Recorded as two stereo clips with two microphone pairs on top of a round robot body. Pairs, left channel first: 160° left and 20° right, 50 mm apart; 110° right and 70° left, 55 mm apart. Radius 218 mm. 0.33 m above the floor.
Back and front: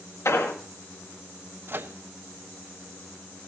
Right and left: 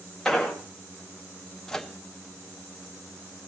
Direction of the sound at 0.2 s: 165° left.